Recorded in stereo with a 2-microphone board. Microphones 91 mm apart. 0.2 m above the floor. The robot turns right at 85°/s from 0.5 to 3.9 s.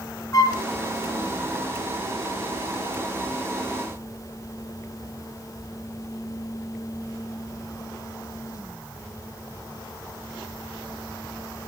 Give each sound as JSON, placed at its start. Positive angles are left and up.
{"t": 0.3, "sound": "a flute", "side_deg": 40, "distance_m": 1.5}